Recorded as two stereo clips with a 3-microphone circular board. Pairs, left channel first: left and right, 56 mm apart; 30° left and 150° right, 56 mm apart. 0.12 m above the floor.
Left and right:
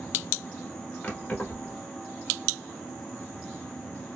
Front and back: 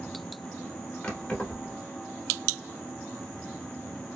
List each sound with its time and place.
1.0 s keys jangling: 55° left, 1.1 m